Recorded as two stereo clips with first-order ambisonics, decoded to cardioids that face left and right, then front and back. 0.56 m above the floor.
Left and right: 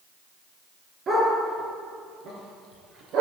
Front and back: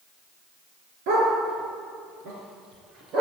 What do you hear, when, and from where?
1.1 s a dog barking: 155° right, 4.5 m; by 3.2 s 130° right, 4 m